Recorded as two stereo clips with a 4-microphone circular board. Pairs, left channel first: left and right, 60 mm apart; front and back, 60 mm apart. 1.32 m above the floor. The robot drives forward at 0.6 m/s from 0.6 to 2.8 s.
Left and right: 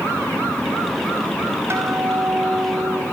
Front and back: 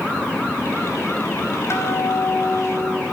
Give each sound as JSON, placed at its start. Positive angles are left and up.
{"t": 1.7, "sound": "a guitar", "azimuth_deg": -45, "distance_m": 4.0}